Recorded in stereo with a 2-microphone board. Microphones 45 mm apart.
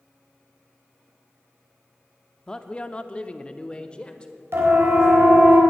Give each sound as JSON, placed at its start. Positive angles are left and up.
{"t": 2.5, "sound": "a man speaking", "side_deg": 20, "distance_m": 0.6}
{"t": 4.5, "sound": "a siren", "side_deg": -65, "distance_m": 3.5}